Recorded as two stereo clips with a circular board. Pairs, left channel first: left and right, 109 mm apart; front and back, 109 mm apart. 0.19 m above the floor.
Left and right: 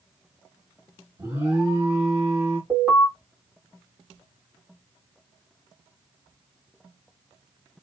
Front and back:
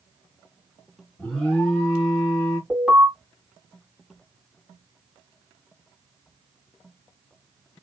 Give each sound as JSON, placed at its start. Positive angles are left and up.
{"t": 1.2, "sound": "an alarm", "azimuth_deg": -65, "distance_m": 1.5}
{"t": 2.7, "sound": "an alarm", "azimuth_deg": -95, "distance_m": 1.9}